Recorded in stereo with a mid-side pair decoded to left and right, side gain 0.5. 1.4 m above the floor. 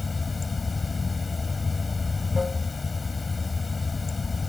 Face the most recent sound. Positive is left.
turn(degrees=20)